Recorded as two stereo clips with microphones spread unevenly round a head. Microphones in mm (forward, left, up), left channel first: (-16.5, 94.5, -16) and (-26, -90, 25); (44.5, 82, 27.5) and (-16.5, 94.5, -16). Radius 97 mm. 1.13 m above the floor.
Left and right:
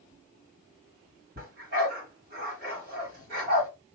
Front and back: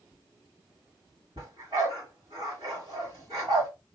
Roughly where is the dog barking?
Behind right.